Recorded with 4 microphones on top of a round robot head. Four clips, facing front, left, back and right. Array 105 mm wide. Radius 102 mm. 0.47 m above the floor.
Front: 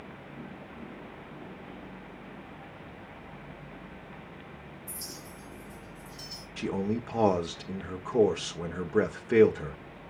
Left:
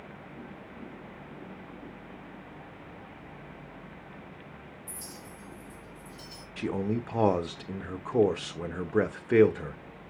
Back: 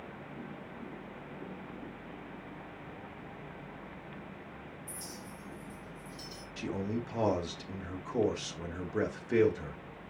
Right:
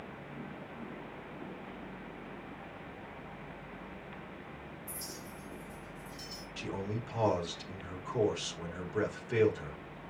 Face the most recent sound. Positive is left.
turn(degrees=60)